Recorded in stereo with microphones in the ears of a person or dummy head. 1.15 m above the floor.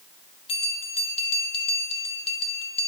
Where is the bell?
30° left (ahead or behind), 1.5 m.